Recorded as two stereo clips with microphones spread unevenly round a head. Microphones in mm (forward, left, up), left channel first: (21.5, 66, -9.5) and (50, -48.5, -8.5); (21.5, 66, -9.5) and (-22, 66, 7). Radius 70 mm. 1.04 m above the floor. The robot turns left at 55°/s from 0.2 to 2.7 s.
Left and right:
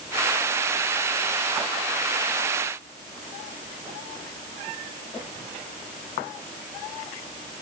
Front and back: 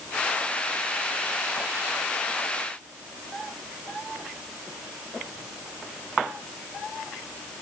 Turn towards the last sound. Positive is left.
No sound to turn to.